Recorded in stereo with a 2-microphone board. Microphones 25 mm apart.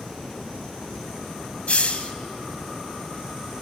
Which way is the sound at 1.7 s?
55° left (ahead or behind).